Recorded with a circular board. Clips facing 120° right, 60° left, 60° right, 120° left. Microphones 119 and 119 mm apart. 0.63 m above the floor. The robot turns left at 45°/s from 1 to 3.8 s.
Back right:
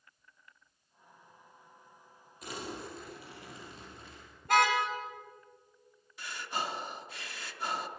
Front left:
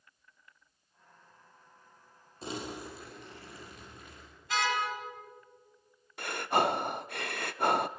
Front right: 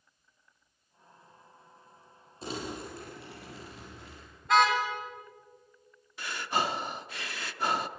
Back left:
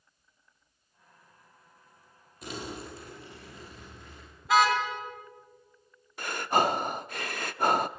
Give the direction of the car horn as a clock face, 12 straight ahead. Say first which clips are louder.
Back right 5 dB, back left 1 dB; 5 o'clock.